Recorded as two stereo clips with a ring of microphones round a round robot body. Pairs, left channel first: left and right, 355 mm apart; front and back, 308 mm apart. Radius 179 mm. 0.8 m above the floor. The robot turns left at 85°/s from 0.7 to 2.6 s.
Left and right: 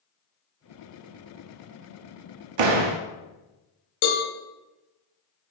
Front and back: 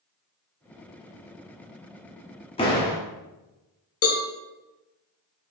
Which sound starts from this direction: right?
A door slam, at 2.6 s.